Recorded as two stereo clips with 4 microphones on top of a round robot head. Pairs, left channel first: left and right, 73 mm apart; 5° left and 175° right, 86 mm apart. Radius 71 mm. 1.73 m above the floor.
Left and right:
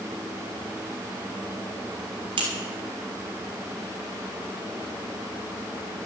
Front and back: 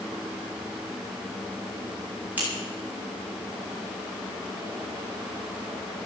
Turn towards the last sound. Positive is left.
turn(degrees=-100)